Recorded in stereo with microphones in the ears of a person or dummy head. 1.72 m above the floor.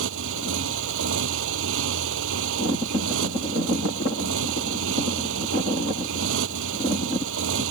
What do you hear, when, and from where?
0.0 s a motorcycle: 70° right (ahead or behind)